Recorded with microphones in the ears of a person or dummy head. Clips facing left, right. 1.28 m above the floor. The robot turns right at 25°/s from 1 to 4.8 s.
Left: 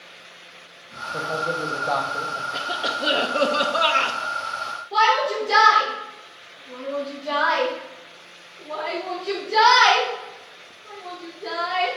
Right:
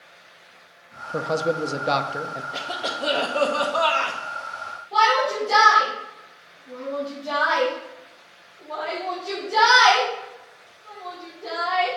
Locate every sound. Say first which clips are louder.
1.1 s a man speaking: right 5 dB; 60° right, 0.6 m; by 2.4 s 25° right, 0.6 m
2.5 s a cough: left 2 dB; 5° left, 0.7 m; by 4.2 s 45° left, 0.7 m
4.9 s a shout: even; 25° left (ahead or behind), 3 m